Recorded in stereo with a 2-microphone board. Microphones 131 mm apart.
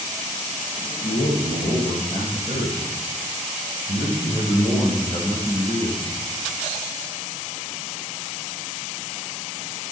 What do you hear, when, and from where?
1.0 s a man speaking: 65° left (ahead or behind), 5.5 m; by 6.2 s 40° left (ahead or behind), 5.5 m